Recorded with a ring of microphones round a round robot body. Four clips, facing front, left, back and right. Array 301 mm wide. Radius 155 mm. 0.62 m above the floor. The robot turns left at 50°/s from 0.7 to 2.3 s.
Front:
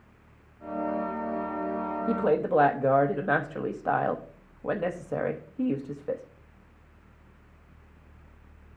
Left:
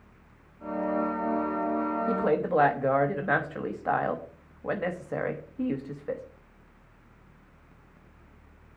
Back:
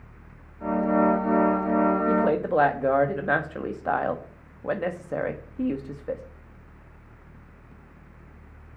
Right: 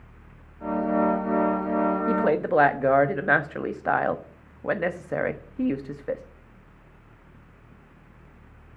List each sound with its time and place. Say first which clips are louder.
2.1 s a woman speaking: right 3 dB, back 2 dB; 85° right, 1.0 m; by 6.2 s 100° right, 1.0 m